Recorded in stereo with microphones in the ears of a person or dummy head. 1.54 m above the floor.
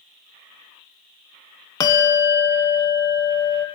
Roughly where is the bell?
Centre.